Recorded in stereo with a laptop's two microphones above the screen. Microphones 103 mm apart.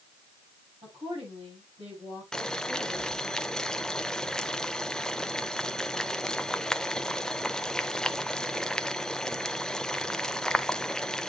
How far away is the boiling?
About 0.5 m.